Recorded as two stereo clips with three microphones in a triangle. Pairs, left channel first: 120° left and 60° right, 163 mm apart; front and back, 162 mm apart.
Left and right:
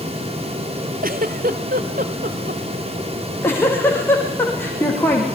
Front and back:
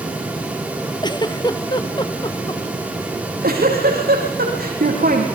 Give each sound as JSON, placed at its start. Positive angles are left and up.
{"t": 1.0, "sound": "a giggle", "azimuth_deg": -60, "distance_m": 0.9}
{"t": 3.1, "sound": "a giggle", "azimuth_deg": -165, "distance_m": 5.0}